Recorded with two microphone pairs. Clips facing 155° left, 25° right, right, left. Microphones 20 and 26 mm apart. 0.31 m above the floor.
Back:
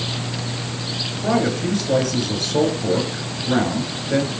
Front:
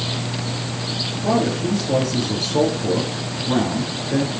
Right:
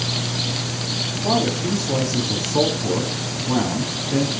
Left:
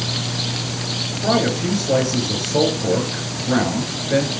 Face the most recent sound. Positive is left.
turn(degrees=100)